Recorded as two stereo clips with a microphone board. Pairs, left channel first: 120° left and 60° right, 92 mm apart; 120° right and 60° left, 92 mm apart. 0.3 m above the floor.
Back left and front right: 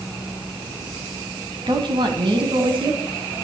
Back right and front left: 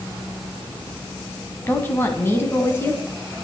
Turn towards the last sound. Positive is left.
turn(degrees=-60)